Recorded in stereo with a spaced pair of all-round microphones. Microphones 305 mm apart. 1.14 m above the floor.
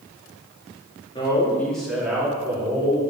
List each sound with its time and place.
1.1 s a man speaking: 15° left (ahead or behind), 2 m; by 3.0 s 20° right (ahead or behind), 3 m